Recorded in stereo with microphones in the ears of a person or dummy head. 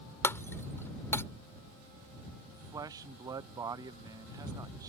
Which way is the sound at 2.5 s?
15° right (ahead or behind).